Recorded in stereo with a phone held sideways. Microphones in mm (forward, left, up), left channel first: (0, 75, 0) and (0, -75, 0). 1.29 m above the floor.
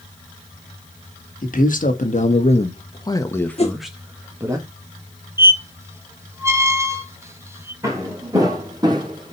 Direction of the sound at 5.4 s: 20° right (ahead or behind).